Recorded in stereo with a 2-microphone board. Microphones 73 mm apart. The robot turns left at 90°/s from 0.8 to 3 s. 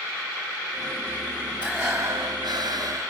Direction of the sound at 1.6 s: 10° right.